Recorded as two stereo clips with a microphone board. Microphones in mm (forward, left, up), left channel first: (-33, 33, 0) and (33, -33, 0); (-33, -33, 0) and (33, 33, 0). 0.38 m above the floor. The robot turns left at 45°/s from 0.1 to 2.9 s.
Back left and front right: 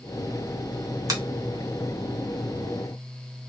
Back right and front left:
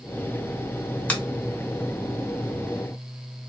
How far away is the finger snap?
About 0.8 m.